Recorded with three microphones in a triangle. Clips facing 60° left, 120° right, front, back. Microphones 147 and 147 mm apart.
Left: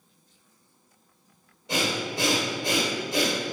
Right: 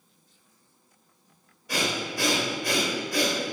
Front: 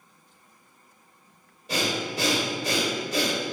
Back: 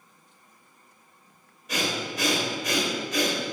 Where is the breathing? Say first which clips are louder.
Left 1 dB, front 2 dB; 20° left, 1.7 m.